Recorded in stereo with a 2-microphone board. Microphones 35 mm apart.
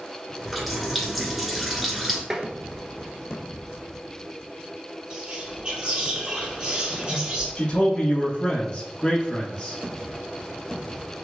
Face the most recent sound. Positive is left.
turn(degrees=25)  # may be behind; listen again after turning